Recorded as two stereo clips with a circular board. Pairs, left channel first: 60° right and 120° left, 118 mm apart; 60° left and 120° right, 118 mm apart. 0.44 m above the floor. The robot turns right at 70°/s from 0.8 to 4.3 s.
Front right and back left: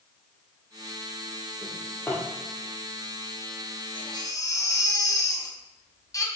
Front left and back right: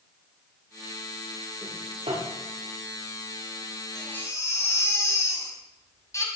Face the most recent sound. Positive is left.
turn(degrees=-5)